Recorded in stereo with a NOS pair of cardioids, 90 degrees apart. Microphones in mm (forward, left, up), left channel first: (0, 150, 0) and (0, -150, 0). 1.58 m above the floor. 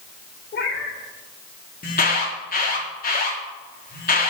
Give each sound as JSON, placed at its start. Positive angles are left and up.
{"t": 0.5, "sound": "a cat meowing", "azimuth_deg": 45, "distance_m": 3.0}
{"t": 1.8, "sound": "an alarm", "azimuth_deg": 30, "distance_m": 4.0}